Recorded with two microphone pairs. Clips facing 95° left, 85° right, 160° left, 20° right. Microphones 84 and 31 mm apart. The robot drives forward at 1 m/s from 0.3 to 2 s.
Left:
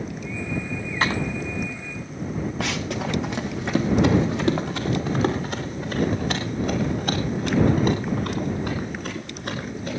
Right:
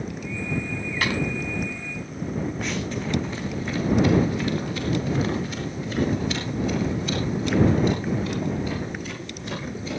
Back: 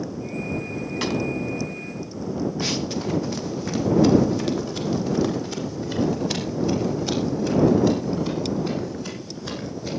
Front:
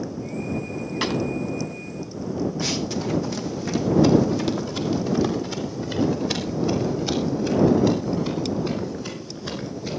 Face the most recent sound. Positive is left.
turn(degrees=65)